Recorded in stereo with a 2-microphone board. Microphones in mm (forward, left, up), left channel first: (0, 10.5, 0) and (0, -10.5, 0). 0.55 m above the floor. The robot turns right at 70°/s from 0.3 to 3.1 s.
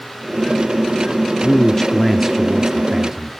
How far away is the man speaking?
About 0.7 m.